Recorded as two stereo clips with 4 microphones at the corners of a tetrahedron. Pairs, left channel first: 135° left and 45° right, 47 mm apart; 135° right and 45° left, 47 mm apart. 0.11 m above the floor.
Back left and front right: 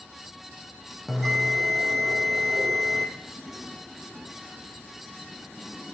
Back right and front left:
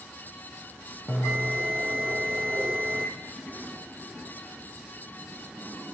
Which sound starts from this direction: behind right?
A bell, at 1.1 s.